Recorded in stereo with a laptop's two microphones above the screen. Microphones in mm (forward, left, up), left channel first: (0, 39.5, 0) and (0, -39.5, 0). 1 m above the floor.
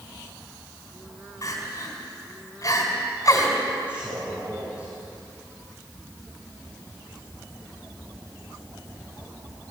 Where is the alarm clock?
I don't hear an alarm clock.